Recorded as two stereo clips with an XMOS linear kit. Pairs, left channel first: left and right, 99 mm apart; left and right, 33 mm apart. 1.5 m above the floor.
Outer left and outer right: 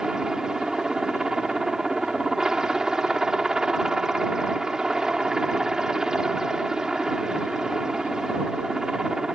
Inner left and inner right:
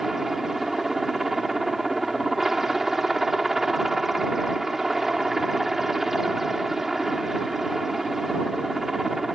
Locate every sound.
0.0 s a helicopter: 5° right (ahead or behind)